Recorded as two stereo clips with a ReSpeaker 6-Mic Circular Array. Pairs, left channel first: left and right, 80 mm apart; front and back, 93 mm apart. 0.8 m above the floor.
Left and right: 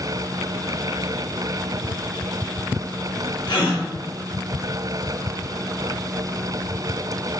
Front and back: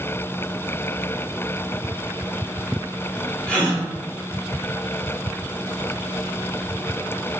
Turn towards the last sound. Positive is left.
turn(degrees=80)